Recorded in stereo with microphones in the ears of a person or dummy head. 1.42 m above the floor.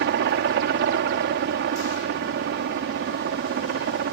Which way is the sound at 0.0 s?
55° right (ahead or behind).